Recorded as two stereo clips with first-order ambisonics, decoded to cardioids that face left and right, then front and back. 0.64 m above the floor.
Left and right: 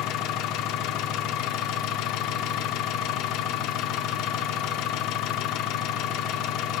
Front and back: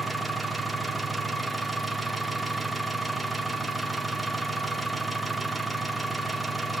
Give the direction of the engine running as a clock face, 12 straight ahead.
9 o'clock.